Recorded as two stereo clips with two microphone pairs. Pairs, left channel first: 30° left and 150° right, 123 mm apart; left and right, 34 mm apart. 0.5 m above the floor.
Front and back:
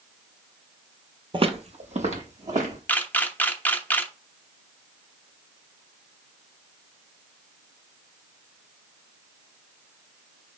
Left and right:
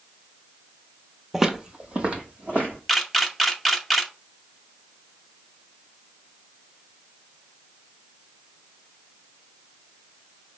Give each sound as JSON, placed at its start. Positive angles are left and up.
{"t": 1.3, "sound": "footsteps", "azimuth_deg": -170, "distance_m": 0.6}
{"t": 2.9, "sound": "a camera shutter", "azimuth_deg": -20, "distance_m": 0.6}